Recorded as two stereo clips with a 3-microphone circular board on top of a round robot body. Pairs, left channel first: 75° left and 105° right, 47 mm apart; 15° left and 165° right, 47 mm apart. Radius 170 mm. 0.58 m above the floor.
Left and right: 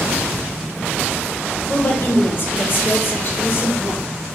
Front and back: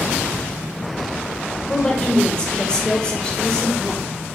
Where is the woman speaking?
75° left, 0.9 m.